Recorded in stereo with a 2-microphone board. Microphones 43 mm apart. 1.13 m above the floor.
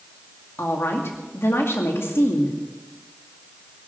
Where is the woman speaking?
70° left (ahead or behind), 2 m.